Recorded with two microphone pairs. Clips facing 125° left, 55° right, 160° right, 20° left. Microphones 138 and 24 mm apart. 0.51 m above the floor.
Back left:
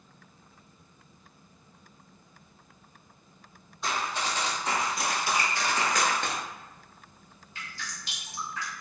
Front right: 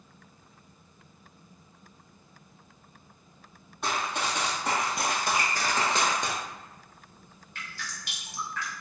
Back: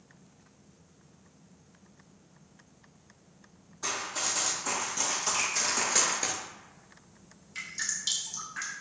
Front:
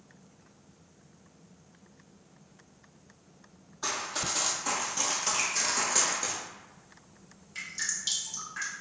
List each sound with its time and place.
3.8 s running footsteps: 45° right, 1.3 m; by 6.3 s 130° right, 0.5 m
5.3 s a finger snap: 65° right, 1.9 m
7.5 s dripping: 75° right, 1.1 m